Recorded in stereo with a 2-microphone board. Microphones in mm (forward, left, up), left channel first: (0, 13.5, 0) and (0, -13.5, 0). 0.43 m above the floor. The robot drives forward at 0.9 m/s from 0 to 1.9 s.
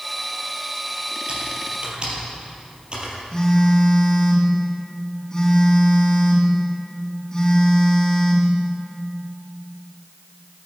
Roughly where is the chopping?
I don't hear chopping.